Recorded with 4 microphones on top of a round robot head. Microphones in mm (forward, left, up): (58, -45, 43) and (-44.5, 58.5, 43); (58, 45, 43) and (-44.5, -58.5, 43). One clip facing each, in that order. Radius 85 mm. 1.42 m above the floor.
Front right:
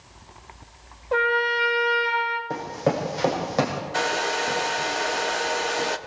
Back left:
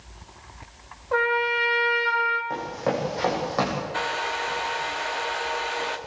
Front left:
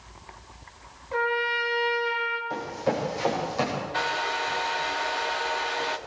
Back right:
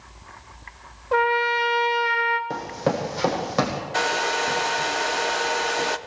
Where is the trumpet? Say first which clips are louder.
Front right 1 dB, back right 6 dB; 115° right, 2.5 m.